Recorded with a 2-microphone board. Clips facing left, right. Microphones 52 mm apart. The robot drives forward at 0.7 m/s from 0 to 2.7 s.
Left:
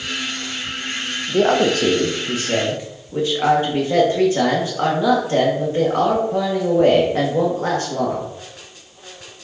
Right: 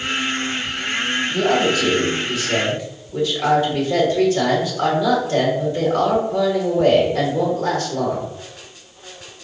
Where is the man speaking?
55° left (ahead or behind), 0.7 m; by 8.3 s 30° left (ahead or behind), 1.1 m.